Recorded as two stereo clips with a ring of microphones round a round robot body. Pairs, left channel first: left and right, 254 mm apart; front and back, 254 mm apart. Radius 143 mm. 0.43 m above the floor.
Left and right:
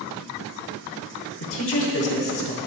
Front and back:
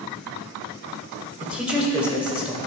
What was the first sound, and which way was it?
A man speaking, 95° left.